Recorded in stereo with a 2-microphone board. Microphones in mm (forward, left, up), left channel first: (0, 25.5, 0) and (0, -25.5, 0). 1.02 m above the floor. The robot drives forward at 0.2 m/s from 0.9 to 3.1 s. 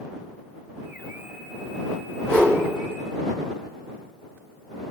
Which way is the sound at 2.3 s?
15° left (ahead or behind).